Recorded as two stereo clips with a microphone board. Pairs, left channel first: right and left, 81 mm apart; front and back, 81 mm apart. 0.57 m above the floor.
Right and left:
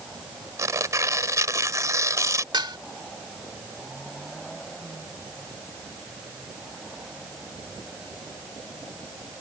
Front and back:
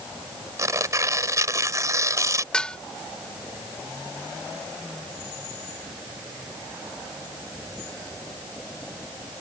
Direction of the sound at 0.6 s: 135° left.